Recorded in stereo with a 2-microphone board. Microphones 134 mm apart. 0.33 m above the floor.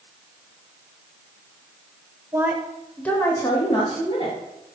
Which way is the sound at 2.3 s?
20° right (ahead or behind).